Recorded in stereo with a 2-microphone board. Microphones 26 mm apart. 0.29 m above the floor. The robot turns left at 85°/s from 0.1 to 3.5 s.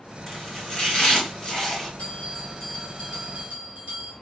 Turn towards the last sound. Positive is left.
turn(degrees=-60)